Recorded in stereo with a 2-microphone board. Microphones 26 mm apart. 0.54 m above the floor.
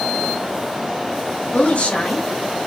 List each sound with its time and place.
1.5 s a woman speaking: 60° left (ahead or behind), 2 m; by 2.6 s 65° left (ahead or behind), 1.9 m